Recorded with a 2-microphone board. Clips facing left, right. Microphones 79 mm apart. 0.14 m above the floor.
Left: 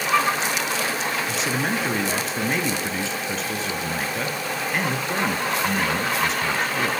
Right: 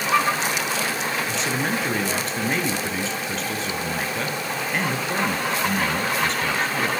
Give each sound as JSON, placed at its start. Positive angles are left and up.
{"t": 1.3, "sound": "a man speaking", "side_deg": 5, "distance_m": 1.6}